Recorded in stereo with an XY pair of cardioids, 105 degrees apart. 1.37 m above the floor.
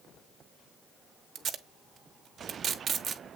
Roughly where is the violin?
No violin in this recording.